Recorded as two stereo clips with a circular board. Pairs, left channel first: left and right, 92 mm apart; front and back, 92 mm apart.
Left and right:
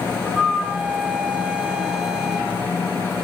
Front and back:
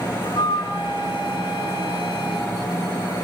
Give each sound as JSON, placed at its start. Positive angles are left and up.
{"t": 0.2, "sound": "a flute", "azimuth_deg": -5, "distance_m": 3.0}